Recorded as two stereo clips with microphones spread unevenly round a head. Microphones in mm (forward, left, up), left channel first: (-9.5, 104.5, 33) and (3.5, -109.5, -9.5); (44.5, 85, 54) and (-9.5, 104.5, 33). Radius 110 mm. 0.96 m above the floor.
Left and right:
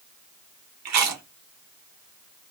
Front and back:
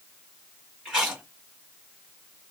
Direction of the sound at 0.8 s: 100° right.